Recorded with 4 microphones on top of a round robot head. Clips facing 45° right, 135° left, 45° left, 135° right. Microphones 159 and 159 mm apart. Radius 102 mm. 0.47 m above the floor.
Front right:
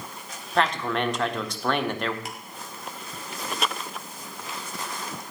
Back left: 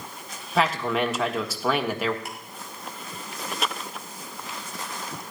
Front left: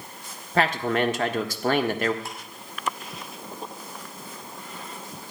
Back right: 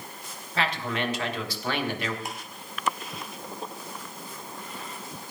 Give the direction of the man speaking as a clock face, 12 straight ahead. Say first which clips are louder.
Back left 1 dB, front left 6 dB; 10 o'clock.